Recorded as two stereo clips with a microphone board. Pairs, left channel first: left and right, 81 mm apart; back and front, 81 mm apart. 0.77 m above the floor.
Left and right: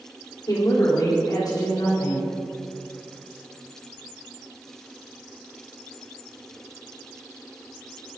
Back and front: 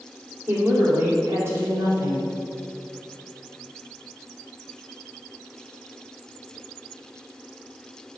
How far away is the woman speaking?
About 2.5 m.